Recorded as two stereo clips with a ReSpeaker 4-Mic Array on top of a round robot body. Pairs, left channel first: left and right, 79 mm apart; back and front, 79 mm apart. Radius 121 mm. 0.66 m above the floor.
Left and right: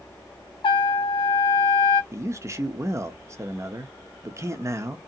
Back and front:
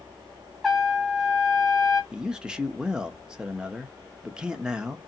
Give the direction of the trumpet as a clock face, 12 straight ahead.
9 o'clock.